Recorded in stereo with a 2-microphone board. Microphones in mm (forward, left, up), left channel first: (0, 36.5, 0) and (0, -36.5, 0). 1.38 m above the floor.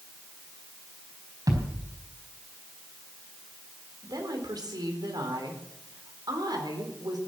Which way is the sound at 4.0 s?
70° right (ahead or behind).